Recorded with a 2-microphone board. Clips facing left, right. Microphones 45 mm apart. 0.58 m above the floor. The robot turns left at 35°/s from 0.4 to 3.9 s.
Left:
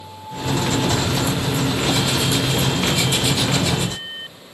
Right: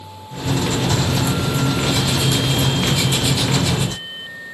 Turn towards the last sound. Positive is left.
No sound to turn to.